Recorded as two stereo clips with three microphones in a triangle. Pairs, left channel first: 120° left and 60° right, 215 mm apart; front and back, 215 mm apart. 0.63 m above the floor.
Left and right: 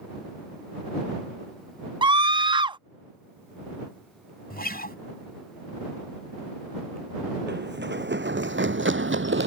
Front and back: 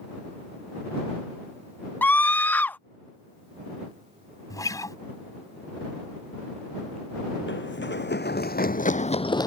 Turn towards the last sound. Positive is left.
turn(degrees=-70)